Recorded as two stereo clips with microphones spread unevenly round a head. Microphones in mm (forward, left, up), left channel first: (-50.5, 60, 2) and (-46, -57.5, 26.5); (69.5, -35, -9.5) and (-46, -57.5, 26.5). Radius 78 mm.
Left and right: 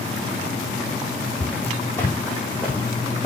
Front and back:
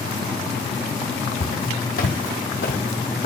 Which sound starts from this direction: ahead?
Footsteps, at 1.4 s.